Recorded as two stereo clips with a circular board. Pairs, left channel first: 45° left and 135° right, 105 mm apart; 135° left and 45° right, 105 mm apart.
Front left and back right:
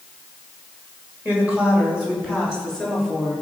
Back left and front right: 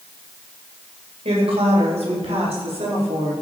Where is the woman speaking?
60° right, 3.5 m; by 3.3 s 45° right, 5 m.